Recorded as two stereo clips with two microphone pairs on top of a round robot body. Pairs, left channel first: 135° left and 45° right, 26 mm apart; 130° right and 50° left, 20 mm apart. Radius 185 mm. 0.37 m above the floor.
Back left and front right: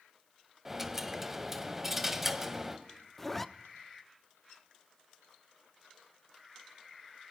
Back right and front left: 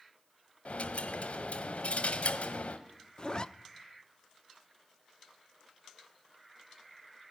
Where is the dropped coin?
125° right, 1.5 m.